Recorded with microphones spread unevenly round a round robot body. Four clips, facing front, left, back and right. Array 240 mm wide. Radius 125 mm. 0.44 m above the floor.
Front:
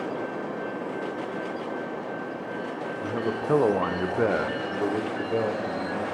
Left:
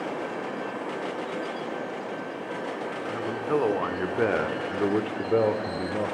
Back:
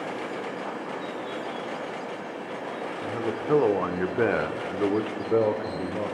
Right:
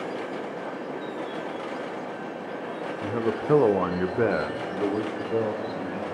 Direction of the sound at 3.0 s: 90° right.